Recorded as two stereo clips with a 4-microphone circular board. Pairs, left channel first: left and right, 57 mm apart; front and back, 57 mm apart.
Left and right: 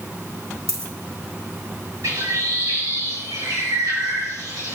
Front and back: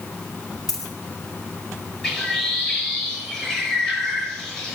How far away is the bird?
About 6.5 m.